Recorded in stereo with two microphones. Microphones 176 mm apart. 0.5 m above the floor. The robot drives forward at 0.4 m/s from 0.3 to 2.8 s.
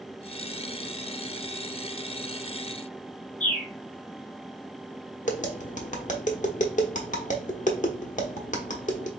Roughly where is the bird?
Left.